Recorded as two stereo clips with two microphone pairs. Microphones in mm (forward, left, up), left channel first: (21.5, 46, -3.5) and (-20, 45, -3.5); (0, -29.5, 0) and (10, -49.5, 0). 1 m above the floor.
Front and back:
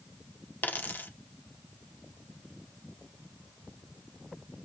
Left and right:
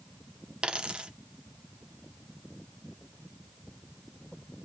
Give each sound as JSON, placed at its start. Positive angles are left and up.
{"t": 0.6, "sound": "a dropped coin", "azimuth_deg": -30, "distance_m": 0.9}